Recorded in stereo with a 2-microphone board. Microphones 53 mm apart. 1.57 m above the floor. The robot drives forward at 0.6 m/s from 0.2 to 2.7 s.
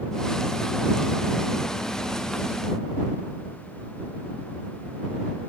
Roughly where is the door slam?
I don't hear a door slam.